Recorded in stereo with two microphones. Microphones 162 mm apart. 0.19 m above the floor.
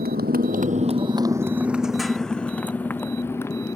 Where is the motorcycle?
80° right; by 3.8 s 15° left (ahead or behind).